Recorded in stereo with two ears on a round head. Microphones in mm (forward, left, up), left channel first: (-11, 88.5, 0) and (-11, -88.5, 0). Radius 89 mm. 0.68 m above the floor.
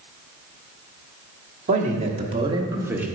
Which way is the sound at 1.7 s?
40° right (ahead or behind).